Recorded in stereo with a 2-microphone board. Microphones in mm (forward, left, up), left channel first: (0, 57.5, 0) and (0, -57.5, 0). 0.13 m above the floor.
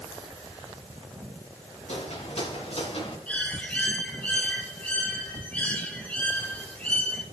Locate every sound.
1.9 s footsteps: 65° left (ahead or behind), 7 m; by 3.2 s 60° left (ahead or behind), 7.5 m
3.3 s a bird: 10° left (ahead or behind), 3.5 m